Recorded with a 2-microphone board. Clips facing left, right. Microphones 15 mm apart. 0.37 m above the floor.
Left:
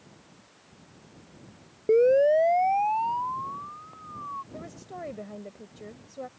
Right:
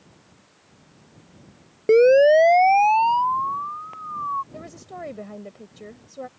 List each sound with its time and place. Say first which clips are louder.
1.9 s a siren: right 6 dB; 70° right (ahead or behind); by 4.4 s 80° right
4.5 s a woman speaking: right 3 dB; 20° right (ahead or behind)